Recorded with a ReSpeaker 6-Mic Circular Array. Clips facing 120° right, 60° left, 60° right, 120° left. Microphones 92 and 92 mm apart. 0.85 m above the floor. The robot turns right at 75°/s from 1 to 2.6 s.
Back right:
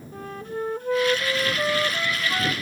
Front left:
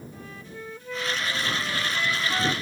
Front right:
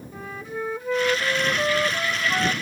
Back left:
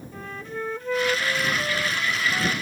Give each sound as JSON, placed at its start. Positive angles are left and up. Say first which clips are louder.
{"t": 0.1, "sound": "a flute", "louder": "back right 9 dB, front right 1 dB", "azimuth_deg": -140}